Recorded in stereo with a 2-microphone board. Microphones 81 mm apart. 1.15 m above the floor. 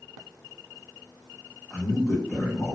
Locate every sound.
1.7 s a man speaking: 5° right (ahead or behind), 0.7 m